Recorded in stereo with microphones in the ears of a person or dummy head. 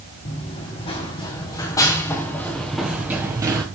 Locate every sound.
0.2 s running footsteps: 35° left (ahead or behind), 3 m; by 3.6 s 20° right (ahead or behind), 1.5 m